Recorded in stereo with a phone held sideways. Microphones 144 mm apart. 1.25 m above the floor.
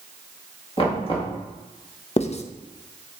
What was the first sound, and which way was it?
Knocking, 40° left (ahead or behind).